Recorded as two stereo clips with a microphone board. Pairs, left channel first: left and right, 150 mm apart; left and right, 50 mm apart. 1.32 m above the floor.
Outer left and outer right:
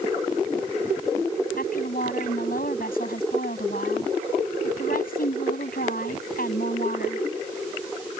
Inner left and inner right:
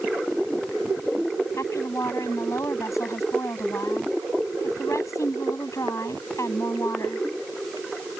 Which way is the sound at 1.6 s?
80° left.